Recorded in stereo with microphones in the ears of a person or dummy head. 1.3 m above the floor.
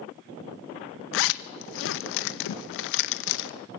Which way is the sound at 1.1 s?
65° left (ahead or behind).